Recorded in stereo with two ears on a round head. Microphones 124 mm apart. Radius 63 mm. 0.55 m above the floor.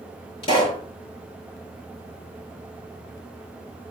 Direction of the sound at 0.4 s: 40° left (ahead or behind).